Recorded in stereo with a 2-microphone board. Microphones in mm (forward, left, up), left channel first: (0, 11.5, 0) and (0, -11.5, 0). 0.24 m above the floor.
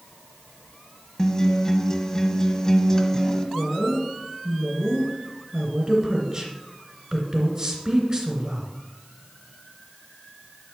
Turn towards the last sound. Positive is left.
turn(degrees=-30)  # may be behind; listen again after turning